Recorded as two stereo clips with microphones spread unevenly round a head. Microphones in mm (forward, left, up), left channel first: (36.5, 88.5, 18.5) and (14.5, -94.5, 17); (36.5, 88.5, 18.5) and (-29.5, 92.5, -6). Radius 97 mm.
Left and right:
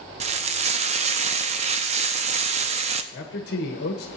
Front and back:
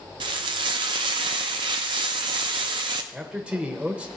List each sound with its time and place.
0.2 s frying: 155° right, 0.6 m
3.1 s a man speaking: 115° left, 1.3 m